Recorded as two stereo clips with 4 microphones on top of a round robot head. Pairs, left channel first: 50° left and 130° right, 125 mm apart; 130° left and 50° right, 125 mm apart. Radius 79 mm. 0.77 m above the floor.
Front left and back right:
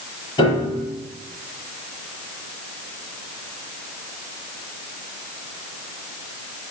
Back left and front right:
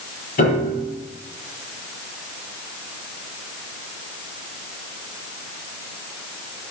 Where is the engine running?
I don't hear an engine running.